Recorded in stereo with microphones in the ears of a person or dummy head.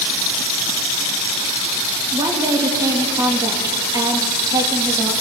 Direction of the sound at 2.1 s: 20° right (ahead or behind).